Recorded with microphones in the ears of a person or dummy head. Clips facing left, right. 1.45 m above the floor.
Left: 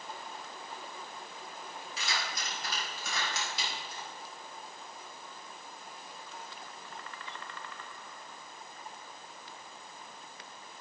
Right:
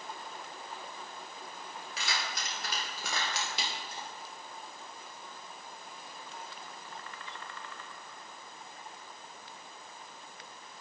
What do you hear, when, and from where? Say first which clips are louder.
2.0 s keys jangling: even; 70° right (ahead or behind), 3.5 m; by 4.1 s 60° right (ahead or behind), 2.5 m